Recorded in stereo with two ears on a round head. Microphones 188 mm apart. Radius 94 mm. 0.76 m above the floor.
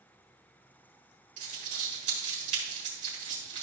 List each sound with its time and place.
1.4 s crumpling: 35° right (ahead or behind), 4 m